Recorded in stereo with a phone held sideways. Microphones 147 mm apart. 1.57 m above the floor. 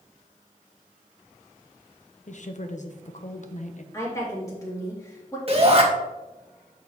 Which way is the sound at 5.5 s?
45° right (ahead or behind).